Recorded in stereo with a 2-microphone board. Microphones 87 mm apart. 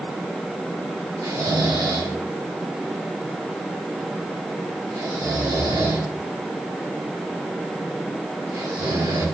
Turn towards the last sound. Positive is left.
turn(degrees=-55)  # may be behind; listen again after turning